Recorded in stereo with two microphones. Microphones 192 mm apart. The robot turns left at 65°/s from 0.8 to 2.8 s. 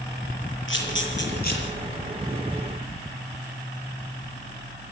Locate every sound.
0.7 s a camera shutter: 85° left, 7.5 m; by 1.6 s 45° left (ahead or behind), 7.5 m